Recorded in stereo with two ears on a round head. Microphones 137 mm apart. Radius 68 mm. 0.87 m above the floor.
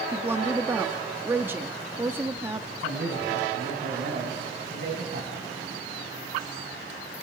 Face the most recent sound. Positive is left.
turn(degrees=-70)  # may be behind; listen again after turning